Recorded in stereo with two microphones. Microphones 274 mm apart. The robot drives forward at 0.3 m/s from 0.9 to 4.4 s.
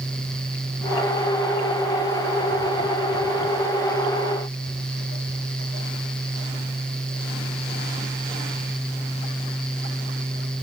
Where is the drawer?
No drawer in this recording.